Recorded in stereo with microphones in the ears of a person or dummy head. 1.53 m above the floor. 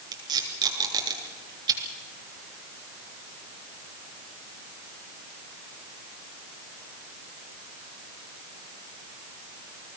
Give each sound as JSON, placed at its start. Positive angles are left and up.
{"t": 0.1, "sound": "tape being pulled", "side_deg": -20, "distance_m": 3.0}